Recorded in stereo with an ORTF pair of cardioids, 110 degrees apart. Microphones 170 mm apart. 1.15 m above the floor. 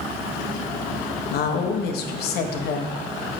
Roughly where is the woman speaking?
Left.